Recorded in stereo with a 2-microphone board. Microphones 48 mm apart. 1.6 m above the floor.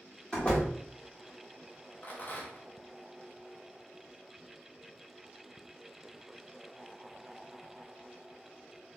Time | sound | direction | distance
0.3 | a door slam | 20° left (ahead or behind) | 1.0 m
2.0 | a rattle | 40° left (ahead or behind) | 0.7 m